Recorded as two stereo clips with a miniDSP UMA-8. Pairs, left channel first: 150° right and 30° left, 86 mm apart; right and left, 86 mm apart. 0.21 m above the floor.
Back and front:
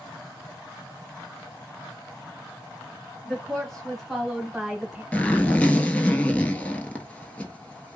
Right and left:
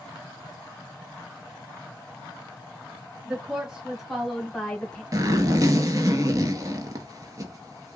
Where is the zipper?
140° left, 0.8 m.